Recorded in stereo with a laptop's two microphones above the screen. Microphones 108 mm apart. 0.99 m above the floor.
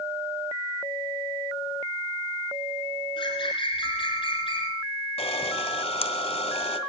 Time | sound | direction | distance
3.2 | a bird | 50° left (ahead or behind) | 4.5 m
5.2 | a camera shutter | 70° left (ahead or behind) | 2.0 m